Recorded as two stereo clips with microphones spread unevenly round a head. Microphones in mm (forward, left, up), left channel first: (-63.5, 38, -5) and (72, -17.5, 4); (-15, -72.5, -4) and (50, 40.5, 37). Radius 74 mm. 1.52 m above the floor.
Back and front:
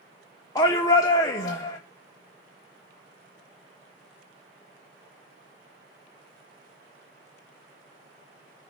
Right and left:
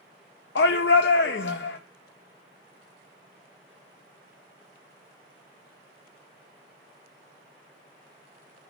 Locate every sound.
0.6 s a shout: 130° right, 0.7 m